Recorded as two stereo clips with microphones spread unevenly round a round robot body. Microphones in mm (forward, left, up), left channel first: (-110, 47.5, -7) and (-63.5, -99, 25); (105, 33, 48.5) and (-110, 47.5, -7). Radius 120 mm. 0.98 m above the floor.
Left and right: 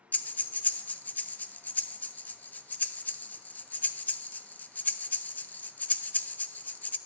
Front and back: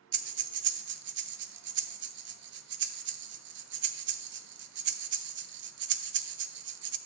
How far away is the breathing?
About 0.6 m.